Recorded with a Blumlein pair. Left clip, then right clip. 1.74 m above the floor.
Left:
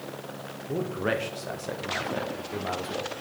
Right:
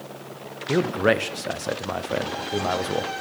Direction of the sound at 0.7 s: 65° right.